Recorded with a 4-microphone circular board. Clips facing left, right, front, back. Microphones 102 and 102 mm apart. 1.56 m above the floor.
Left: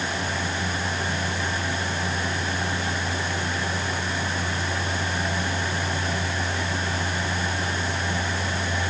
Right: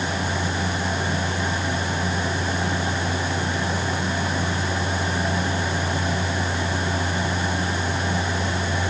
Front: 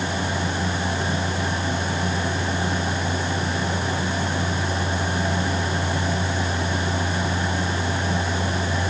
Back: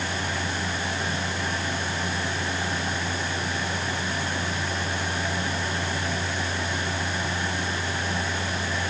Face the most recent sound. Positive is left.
No sound to turn to.